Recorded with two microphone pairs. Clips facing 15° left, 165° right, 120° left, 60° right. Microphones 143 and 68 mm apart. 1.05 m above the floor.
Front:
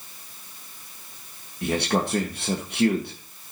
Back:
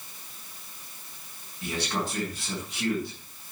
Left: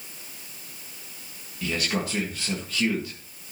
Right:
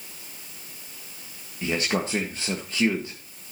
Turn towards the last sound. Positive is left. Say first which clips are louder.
# front 7 dB, right 2 dB
turn(degrees=0)